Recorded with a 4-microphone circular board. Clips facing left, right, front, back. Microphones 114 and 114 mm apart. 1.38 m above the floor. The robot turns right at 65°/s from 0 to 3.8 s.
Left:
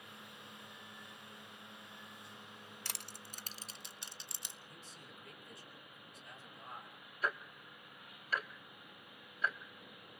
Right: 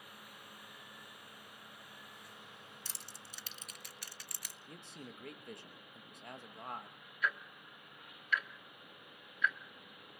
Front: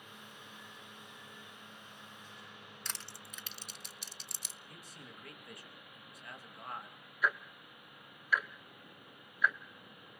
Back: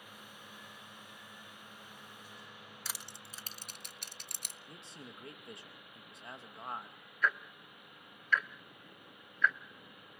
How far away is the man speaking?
About 2.5 m.